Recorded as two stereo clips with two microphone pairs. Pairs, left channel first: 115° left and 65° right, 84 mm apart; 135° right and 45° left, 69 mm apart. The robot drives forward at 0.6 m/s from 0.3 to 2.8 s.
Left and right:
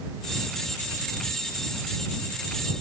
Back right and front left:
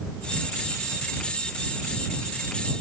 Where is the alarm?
No alarm in this recording.